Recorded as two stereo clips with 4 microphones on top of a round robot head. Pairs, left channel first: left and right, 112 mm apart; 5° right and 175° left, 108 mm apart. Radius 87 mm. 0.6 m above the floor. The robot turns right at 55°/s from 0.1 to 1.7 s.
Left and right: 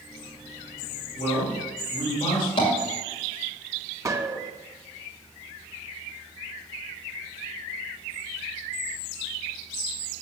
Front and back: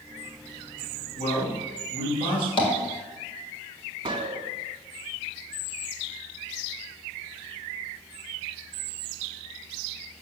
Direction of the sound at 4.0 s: 150° right.